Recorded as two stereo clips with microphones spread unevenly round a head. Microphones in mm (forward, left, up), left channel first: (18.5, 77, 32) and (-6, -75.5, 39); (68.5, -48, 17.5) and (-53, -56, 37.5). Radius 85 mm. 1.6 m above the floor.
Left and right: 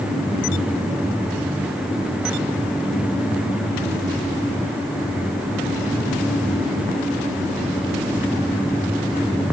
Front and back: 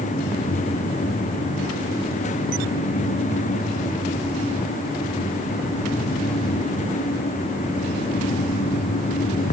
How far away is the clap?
I don't hear a clap.